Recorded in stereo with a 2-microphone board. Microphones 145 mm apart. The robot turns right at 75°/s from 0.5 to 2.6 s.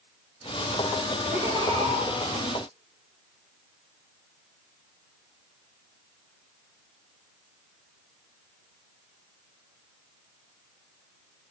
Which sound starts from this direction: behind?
Laughter, at 1.3 s.